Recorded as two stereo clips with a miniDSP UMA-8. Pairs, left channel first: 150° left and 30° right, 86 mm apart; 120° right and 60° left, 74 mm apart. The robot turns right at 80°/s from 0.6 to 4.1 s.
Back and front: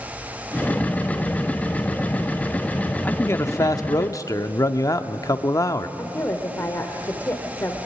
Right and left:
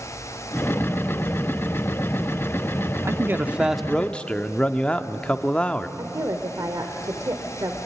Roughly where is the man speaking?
Left.